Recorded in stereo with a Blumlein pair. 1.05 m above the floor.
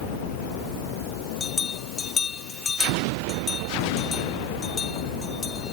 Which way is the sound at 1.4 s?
20° left.